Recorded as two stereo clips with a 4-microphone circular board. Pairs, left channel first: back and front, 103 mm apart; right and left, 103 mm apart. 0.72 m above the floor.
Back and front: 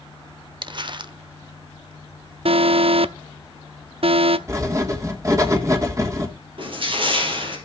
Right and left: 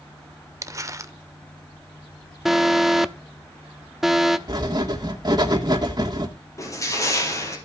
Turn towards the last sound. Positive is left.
turn(degrees=-30)